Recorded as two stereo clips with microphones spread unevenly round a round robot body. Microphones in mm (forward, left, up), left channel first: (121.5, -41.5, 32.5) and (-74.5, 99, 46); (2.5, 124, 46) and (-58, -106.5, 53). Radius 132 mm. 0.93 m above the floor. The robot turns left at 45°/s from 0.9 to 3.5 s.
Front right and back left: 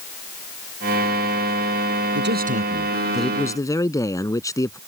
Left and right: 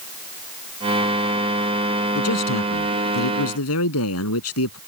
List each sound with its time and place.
2.1 s a man speaking: 105° left; by 4.8 s 40° left